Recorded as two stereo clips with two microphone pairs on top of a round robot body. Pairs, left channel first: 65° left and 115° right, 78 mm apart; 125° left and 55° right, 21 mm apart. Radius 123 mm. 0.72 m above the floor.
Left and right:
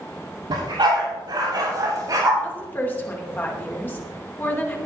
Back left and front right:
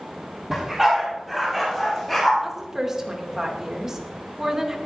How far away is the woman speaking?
About 2.5 m.